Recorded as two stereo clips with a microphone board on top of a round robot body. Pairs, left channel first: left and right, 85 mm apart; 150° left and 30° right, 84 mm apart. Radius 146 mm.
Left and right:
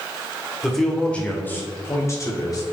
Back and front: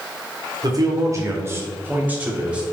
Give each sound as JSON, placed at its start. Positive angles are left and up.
{"t": 0.6, "sound": "a man speaking", "azimuth_deg": 0, "distance_m": 1.9}